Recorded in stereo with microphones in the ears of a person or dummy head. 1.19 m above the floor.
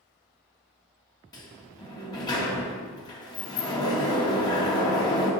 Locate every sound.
1.3 s a sliding door: 20° left (ahead or behind), 1.7 m